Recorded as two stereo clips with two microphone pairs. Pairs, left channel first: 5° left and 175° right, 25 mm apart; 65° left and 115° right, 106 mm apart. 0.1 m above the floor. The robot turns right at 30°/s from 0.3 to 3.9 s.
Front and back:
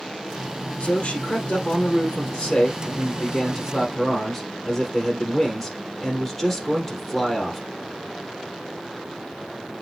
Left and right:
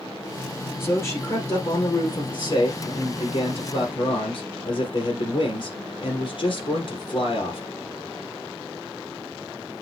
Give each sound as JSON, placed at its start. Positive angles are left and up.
{"t": 0.8, "sound": "a man speaking", "azimuth_deg": 0, "distance_m": 3.0}